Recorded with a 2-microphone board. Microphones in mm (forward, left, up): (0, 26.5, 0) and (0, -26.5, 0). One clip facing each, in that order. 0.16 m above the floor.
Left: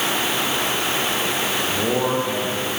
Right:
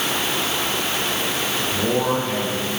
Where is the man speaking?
10° left (ahead or behind), 5.5 m; by 2.7 s 5° left (ahead or behind), 6 m.